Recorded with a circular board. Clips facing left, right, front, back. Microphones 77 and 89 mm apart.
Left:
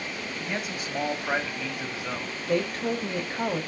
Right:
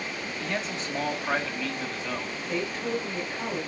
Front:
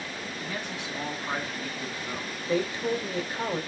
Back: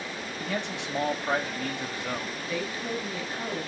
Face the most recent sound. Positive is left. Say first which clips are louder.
# left 4 dB, front 6 dB
turn(degrees=60)